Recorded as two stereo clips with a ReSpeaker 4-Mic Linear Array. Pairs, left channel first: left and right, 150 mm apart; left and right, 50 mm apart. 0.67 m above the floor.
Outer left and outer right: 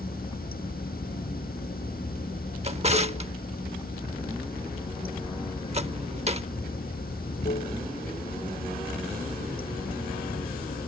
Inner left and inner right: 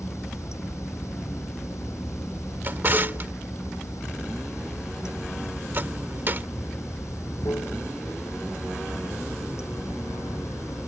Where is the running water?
70° left (ahead or behind).